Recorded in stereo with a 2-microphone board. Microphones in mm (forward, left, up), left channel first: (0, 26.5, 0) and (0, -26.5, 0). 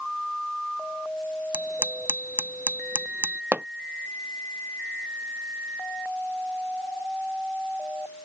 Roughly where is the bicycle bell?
Right.